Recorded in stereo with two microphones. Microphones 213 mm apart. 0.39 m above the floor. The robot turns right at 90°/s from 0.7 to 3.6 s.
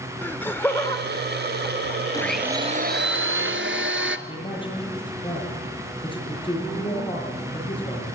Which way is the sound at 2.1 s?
160° left.